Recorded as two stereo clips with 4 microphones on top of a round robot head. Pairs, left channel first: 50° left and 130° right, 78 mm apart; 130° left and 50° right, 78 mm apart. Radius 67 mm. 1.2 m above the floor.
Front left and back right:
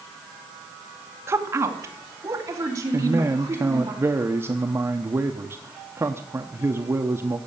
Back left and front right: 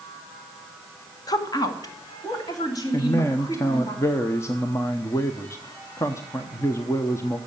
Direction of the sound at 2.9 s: 175° left.